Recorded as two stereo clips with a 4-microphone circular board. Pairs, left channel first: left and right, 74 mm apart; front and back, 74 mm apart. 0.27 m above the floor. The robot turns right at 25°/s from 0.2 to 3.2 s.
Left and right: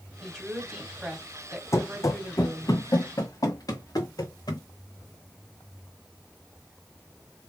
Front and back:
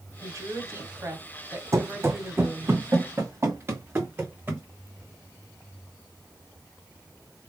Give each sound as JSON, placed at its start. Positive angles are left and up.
{"t": 0.2, "sound": "a woman speaking", "azimuth_deg": 170, "distance_m": 1.8}
{"t": 1.7, "sound": "running footsteps", "azimuth_deg": 135, "distance_m": 0.6}